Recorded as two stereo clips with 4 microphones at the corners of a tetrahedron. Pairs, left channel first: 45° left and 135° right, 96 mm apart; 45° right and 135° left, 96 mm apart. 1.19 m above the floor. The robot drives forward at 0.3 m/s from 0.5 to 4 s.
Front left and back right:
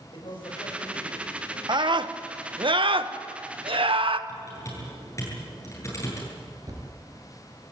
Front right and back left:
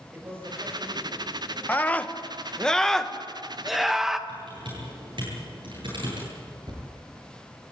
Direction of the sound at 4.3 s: 105° left.